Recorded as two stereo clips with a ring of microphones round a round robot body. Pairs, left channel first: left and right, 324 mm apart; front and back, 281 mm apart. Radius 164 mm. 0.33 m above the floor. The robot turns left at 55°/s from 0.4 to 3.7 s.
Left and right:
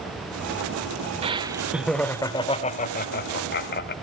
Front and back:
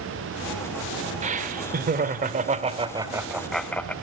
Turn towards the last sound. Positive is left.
turn(degrees=80)